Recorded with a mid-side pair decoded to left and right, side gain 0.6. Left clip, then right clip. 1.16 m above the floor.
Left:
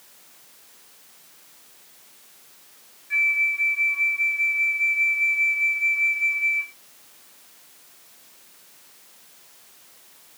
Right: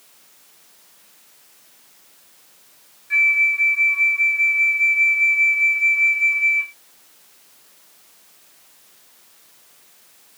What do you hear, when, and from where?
3.1 s a flute: 30° right